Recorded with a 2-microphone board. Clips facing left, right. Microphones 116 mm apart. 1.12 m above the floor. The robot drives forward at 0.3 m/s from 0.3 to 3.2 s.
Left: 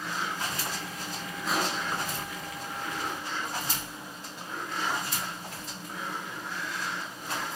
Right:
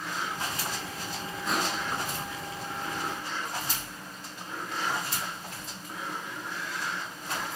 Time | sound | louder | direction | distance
1.5 | crushing | left 1 dB | centre (ahead or behind) | 7 m